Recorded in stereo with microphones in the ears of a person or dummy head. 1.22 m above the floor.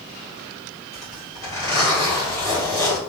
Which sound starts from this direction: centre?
A zipper, at 0.9 s.